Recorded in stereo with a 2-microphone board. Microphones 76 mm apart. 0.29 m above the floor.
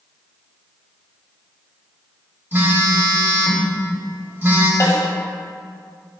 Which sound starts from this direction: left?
A snare drum, at 4.8 s.